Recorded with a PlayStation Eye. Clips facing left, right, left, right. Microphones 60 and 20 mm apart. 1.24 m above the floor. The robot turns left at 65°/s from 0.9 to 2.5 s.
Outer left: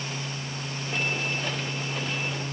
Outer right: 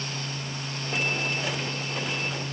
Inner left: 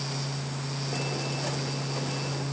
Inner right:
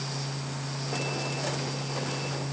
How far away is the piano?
I don't hear a piano.